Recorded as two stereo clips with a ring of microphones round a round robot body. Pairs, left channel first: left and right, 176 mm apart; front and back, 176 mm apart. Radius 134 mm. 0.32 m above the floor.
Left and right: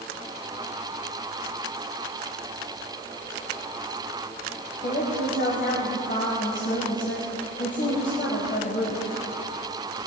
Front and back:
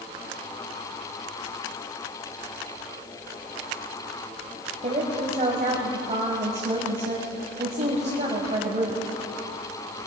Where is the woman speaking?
135° left, 1.7 m.